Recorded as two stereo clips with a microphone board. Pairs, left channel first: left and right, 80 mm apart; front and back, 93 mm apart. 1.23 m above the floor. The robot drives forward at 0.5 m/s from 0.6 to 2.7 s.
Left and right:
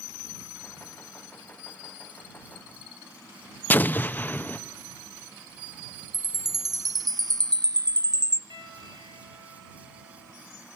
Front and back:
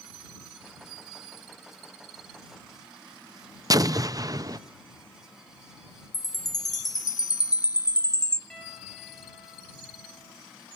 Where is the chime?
50° right, 0.6 m.